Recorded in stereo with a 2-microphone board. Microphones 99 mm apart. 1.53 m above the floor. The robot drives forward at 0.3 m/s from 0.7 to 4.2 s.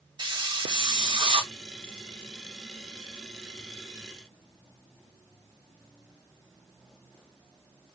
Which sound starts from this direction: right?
A hiss, at 0.2 s.